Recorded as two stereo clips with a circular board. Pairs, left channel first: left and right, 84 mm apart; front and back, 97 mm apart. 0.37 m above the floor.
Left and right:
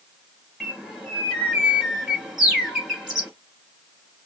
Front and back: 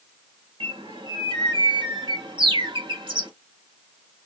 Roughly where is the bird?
Behind.